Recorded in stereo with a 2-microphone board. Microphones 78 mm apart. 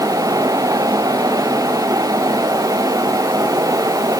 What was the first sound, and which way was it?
Only background noise.